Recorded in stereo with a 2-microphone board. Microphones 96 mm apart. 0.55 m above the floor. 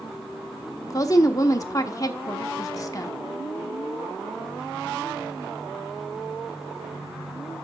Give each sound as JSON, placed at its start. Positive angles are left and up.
{"t": 0.9, "sound": "a woman speaking", "side_deg": 35, "distance_m": 0.8}